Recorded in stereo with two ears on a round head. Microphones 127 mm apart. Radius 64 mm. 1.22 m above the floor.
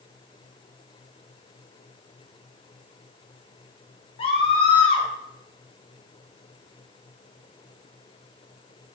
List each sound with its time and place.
4.2 s a scream: 40° left (ahead or behind), 4.5 m